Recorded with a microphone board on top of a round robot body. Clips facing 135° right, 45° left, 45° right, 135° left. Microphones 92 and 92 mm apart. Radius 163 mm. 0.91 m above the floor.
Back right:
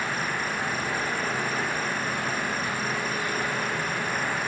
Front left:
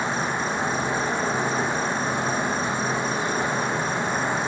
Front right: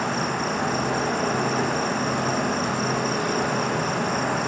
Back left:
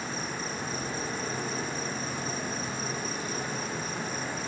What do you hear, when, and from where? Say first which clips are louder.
0.0 s an insect: front left 4 dB, front right 10 dB; 25° right, 1.1 m